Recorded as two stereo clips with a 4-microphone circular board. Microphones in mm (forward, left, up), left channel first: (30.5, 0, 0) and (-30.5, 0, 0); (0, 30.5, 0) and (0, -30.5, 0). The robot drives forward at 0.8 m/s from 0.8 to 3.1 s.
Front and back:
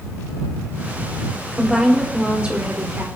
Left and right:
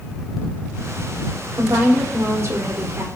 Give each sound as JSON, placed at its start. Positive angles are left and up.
{"t": 1.5, "sound": "a woman speaking", "azimuth_deg": -95, "distance_m": 2.5}